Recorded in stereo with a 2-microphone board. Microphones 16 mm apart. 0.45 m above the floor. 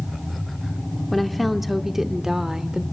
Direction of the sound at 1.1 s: 10° left (ahead or behind).